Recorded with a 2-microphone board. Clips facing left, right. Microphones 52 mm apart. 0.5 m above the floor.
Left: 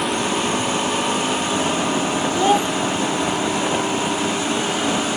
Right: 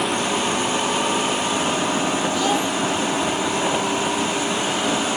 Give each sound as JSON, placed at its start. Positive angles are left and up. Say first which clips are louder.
{"t": 2.4, "sound": "a child speaking", "louder": "left 7 dB", "side_deg": 30}